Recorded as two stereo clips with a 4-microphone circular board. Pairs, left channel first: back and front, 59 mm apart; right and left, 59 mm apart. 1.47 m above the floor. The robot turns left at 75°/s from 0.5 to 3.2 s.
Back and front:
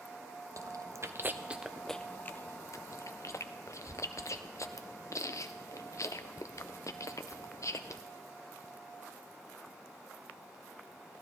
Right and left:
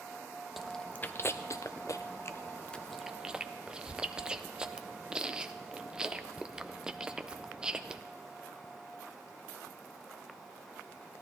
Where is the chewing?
5° left, 0.5 m; by 8.0 s 165° left, 0.5 m.